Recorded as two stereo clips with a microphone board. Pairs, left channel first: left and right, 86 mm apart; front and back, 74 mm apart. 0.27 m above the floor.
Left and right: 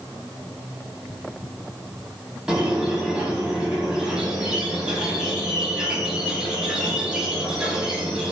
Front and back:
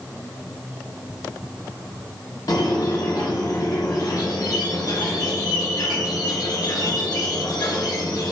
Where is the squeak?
10° right, 0.6 m.